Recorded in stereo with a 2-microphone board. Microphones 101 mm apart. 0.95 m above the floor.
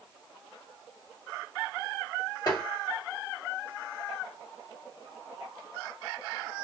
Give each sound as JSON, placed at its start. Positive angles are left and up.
{"t": 2.5, "sound": "tapping", "side_deg": 40, "distance_m": 1.7}